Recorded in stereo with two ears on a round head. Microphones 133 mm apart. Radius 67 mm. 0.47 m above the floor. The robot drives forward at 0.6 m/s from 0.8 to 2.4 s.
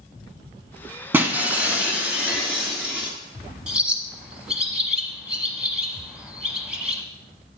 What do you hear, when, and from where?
1.1 s breaking glass: 15° right (ahead or behind), 0.9 m; by 3.1 s 10° right (ahead or behind), 1.6 m
3.7 s a bird: 5° right (ahead or behind), 0.7 m